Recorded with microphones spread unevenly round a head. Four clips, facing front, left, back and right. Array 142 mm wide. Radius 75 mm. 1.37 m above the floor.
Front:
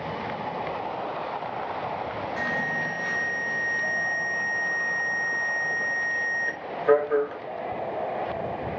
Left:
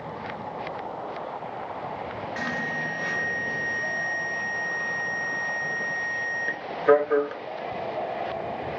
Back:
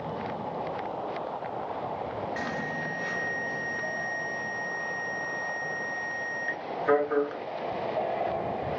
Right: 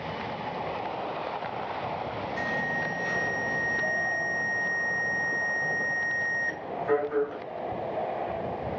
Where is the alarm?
80° left, 1.1 m.